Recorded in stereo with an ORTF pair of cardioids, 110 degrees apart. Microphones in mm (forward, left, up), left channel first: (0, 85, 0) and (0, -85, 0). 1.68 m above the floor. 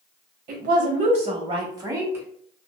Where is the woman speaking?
55° right, 1.1 m; by 2.2 s 15° right, 1.4 m.